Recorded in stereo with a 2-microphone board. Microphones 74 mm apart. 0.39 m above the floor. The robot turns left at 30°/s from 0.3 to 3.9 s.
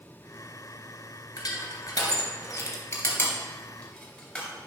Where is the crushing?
55° left (ahead or behind), 2.5 m; by 4.5 s 20° left (ahead or behind), 2.5 m.